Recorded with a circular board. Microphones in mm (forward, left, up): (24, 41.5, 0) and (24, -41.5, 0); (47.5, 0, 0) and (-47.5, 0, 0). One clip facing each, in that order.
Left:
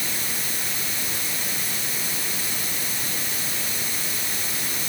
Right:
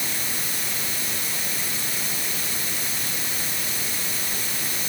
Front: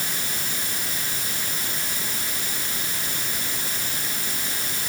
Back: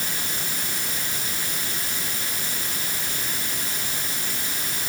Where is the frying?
I don't hear frying.